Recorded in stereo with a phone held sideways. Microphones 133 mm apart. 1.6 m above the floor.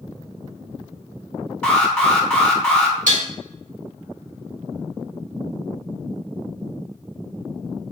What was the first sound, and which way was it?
An alarm, 5° left (ahead or behind).